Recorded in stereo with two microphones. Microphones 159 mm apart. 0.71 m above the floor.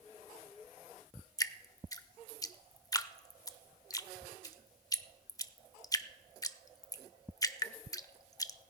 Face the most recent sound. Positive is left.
turn(degrees=25)  # may be behind; listen again after turning